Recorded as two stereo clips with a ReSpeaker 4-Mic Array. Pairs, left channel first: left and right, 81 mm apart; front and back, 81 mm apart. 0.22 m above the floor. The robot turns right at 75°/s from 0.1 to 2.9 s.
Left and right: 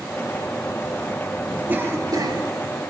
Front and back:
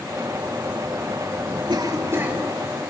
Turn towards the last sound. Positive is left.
turn(degrees=-65)